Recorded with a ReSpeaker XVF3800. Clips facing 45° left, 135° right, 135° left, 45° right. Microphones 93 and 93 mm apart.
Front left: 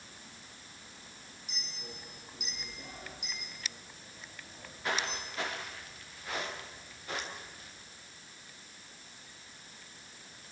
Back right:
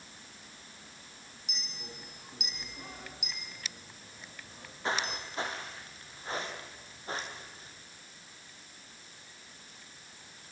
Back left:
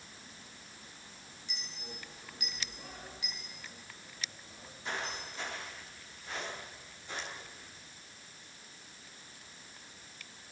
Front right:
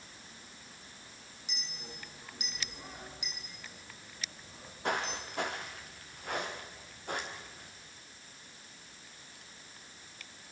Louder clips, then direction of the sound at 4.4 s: Back right 2 dB, front right 9 dB; 70° right.